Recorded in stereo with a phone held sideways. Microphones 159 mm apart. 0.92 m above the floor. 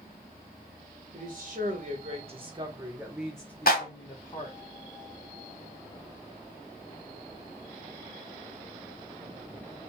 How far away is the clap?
About 1.3 m.